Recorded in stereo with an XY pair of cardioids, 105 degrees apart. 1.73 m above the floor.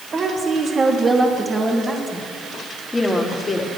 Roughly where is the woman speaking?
Ahead right.